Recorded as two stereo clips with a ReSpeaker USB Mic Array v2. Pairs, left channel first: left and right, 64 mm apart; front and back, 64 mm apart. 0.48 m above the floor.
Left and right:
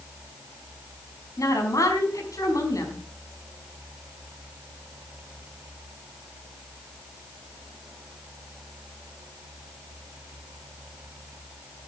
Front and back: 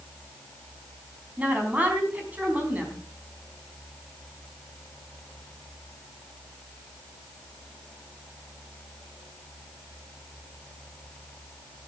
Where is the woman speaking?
115° left, 5 m.